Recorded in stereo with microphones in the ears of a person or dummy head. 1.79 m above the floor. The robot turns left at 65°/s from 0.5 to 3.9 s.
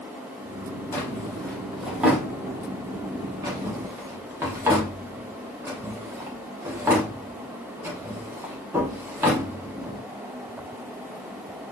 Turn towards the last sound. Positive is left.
turn(degrees=-15)  # may be behind; listen again after turning